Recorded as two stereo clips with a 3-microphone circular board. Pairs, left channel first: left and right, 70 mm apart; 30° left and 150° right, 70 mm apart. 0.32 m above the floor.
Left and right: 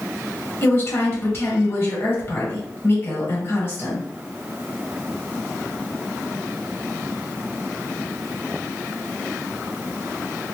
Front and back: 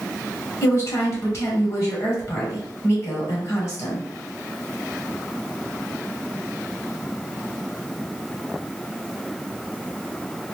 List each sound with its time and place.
0.6 s a woman speaking: 55° left, 1.3 m